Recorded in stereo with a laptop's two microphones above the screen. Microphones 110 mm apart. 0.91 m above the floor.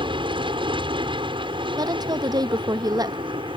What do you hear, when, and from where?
0.0 s an aircraft: 50° right (ahead or behind)
1.8 s a woman speaking: 35° right (ahead or behind)